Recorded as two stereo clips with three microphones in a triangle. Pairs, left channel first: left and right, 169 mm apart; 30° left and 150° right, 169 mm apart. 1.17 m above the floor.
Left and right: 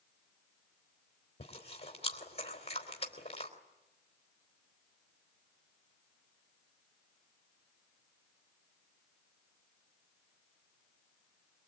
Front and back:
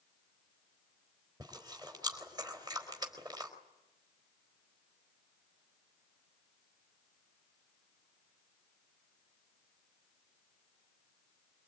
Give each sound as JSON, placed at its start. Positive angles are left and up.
{"t": 1.4, "sound": "chewing", "azimuth_deg": 145, "distance_m": 4.0}